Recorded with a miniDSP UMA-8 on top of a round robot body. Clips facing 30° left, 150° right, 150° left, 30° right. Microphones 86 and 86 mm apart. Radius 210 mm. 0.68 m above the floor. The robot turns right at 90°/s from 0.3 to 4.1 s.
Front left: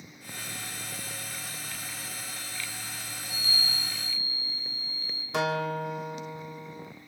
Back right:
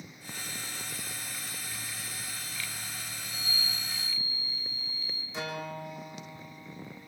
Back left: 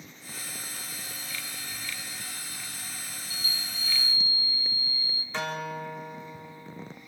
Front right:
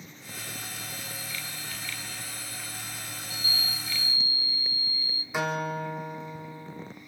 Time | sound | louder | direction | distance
3.2 | a chime | front left 3 dB, front right 4 dB | 10° left | 2.5 m
5.3 | a guitar | front left 9 dB, front right 4 dB | 50° left | 3 m